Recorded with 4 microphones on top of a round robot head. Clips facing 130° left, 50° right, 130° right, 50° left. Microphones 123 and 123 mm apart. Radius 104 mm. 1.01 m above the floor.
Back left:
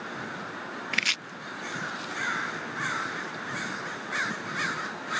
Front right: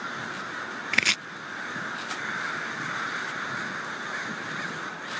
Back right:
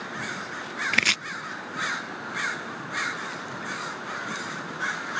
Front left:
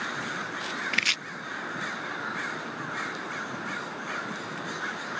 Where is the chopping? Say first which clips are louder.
Front right 4 dB, back right 4 dB; 90° right.